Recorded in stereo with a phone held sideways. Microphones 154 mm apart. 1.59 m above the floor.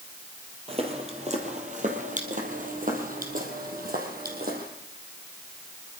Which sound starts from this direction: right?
Footsteps, at 0.7 s.